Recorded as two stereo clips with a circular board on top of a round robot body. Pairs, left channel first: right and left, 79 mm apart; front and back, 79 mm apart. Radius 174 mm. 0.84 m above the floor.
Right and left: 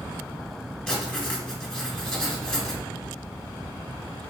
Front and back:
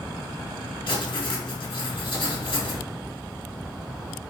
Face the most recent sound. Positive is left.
turn(degrees=-5)